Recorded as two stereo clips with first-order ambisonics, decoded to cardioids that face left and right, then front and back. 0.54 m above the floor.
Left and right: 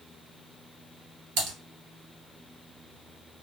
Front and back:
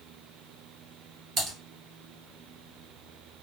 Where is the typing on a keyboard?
120° right, 1.6 m.